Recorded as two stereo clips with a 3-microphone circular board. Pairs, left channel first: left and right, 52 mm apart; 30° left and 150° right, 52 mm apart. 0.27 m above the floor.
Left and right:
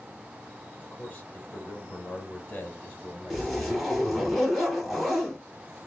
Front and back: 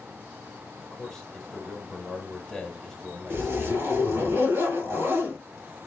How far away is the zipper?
About 3 m.